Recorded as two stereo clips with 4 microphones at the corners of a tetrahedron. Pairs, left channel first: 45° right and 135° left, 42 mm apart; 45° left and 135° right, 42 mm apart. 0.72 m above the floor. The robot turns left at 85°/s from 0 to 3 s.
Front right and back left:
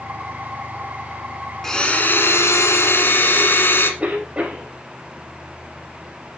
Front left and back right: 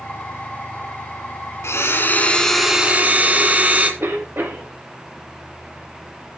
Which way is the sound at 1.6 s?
35° left.